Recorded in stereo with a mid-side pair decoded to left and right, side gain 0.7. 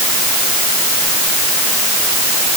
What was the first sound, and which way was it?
Only background noise.